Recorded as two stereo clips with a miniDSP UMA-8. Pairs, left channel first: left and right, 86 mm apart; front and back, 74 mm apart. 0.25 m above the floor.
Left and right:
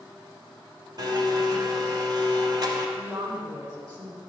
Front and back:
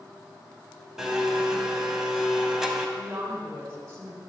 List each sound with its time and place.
1.0 s a blender: 100° right, 0.7 m
3.0 s a woman speaking: 125° right, 1.9 m